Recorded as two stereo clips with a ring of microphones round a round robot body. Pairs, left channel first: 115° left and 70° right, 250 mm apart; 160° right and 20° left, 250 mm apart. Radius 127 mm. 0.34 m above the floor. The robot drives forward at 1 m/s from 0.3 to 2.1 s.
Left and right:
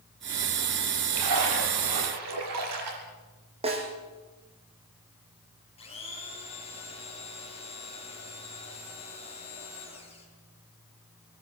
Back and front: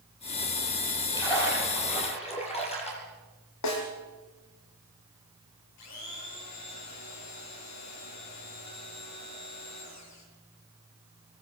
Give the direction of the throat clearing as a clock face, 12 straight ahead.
I don't hear throat clearing.